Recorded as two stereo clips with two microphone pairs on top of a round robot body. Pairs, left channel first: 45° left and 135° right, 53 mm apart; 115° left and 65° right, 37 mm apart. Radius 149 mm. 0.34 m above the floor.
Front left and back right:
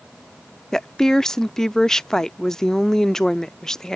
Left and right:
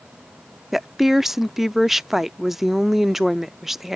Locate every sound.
0.7 s a woman speaking: 5° right